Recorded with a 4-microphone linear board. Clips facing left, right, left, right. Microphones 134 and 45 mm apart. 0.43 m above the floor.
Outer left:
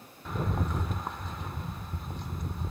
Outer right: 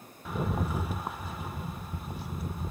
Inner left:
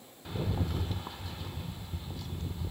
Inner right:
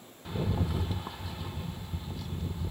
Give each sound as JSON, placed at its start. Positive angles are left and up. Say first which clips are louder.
{"t": 0.2, "sound": "a rattle", "louder": "outer right 1 dB, inner right 2 dB", "side_deg": -5, "distance_m": 0.8}